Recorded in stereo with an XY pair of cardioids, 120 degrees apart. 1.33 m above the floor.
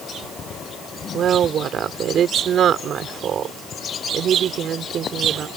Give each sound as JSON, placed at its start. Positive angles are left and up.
{"t": 1.1, "sound": "a woman speaking", "azimuth_deg": -50}